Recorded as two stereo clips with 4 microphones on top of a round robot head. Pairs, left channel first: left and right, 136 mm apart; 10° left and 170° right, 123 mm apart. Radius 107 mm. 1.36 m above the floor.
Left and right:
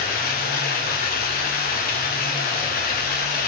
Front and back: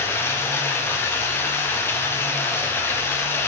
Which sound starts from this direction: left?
Running water, at 0.0 s.